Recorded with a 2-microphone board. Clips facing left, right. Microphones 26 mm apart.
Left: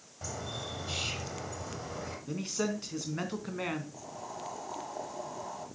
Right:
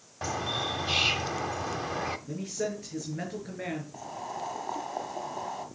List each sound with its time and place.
0.2 s a bird: 40° right (ahead or behind), 1.0 m
2.3 s a man speaking: 75° left (ahead or behind), 3.5 m
3.9 s boiling: 30° right (ahead or behind), 1.6 m